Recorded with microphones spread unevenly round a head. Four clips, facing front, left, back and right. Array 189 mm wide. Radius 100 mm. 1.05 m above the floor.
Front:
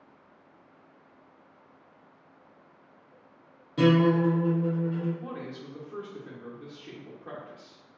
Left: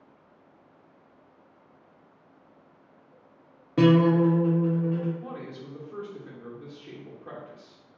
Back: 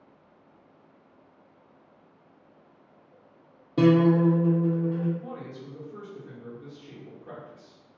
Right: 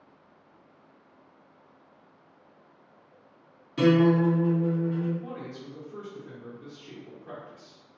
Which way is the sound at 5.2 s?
25° left.